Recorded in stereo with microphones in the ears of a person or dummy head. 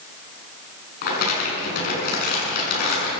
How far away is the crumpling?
About 8.5 m.